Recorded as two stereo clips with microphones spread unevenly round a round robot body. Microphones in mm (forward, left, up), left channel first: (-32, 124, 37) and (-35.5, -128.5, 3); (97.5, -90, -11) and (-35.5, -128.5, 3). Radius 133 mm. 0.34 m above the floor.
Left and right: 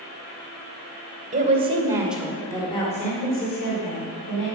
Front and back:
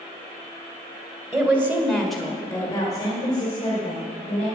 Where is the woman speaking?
95° right, 1.7 m; by 4.5 s 55° left, 2.5 m.